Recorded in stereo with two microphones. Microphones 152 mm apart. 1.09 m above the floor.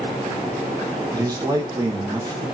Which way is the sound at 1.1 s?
25° right (ahead or behind).